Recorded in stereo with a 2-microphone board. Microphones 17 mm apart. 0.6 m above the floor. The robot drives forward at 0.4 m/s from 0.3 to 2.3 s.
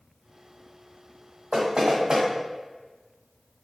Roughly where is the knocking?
Right.